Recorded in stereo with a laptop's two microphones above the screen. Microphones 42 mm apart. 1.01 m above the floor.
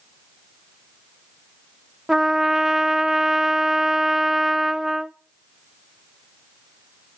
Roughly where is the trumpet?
Centre.